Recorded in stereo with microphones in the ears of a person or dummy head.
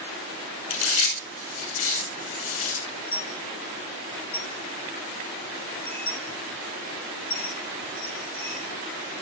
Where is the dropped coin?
10° left (ahead or behind), 2.5 m.